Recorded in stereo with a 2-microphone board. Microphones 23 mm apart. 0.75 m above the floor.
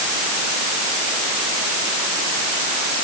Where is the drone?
I don't hear a drone.